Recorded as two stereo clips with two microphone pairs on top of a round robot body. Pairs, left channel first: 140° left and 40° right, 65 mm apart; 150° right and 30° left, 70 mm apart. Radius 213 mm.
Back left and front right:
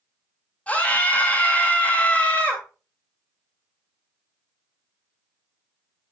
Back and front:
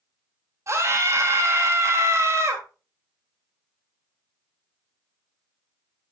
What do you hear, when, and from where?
0.7 s a scream: 70° left, 2 m